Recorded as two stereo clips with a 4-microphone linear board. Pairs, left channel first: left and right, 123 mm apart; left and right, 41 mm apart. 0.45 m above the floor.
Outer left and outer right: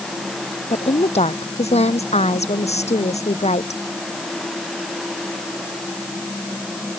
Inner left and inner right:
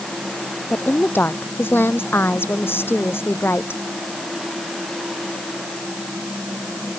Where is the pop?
No pop in this recording.